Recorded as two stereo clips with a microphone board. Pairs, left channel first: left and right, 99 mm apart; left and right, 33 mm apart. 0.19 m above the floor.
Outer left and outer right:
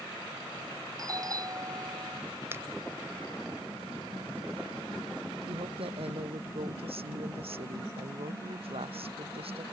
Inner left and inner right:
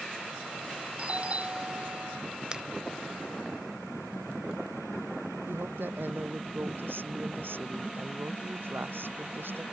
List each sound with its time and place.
1.0 s a doorbell: 40° right (ahead or behind)
2.5 s a finger snap: 25° right (ahead or behind)
5.5 s a woman speaking: 80° right